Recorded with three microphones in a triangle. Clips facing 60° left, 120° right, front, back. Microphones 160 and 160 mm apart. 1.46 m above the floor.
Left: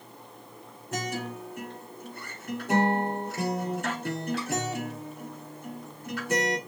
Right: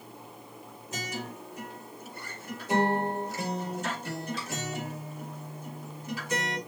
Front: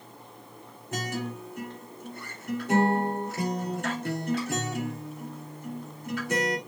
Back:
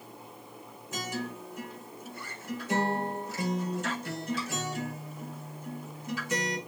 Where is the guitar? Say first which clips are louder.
Left 5 dB, front 3 dB; 30° left, 3 m.